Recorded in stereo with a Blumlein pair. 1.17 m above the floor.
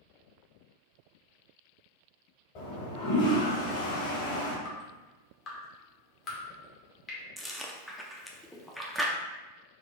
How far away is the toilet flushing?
About 1.7 m.